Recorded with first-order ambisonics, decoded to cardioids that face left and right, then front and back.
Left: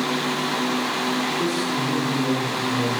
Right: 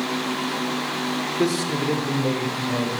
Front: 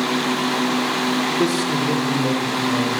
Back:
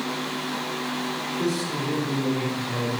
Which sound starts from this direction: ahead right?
A man speaking, at 1.4 s.